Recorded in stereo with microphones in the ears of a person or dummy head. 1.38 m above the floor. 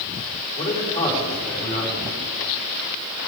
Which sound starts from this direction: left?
A man speaking, at 0.6 s.